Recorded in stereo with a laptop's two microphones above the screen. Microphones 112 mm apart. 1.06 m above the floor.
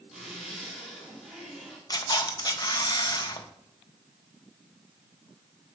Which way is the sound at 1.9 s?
35° left (ahead or behind).